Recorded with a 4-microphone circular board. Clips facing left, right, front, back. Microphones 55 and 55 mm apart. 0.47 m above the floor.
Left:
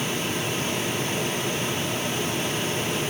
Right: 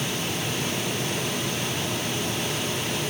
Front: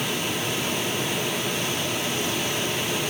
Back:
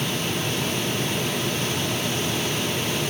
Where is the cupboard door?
No cupboard door in this recording.